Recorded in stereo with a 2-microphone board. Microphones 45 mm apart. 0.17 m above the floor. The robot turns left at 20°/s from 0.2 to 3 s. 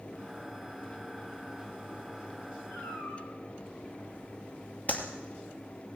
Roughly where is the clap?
Left.